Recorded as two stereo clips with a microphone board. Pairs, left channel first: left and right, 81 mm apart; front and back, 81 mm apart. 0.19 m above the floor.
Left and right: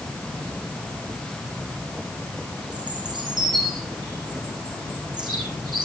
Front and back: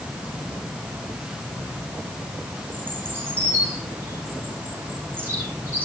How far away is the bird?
About 4.5 m.